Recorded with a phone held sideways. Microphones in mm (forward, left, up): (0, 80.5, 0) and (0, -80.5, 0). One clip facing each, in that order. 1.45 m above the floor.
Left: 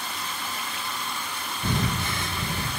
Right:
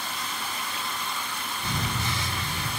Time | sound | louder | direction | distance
1.6 | breathing | left 5 dB | 55° left (ahead or behind) | 1.4 m